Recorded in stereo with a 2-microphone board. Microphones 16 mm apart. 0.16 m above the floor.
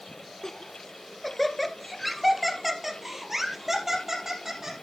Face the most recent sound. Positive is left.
turn(degrees=-30)  # may be behind; listen again after turning